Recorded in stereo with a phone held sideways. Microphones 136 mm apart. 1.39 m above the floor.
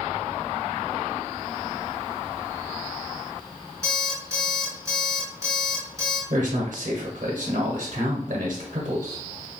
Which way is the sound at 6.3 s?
60° right (ahead or behind).